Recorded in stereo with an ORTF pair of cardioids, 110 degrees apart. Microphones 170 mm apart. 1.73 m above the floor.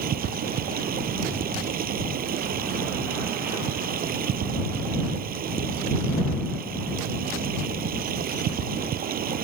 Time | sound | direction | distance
0.0 | running water | 60° right | ?